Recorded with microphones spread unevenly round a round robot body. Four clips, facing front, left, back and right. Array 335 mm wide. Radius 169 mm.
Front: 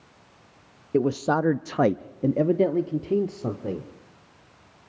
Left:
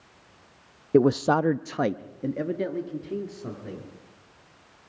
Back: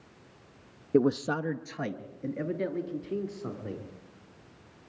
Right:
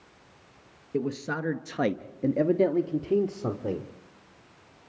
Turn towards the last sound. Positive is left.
turn(degrees=-30)